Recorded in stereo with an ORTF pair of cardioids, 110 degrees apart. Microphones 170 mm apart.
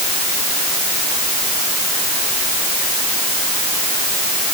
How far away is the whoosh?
No whoosh in this recording.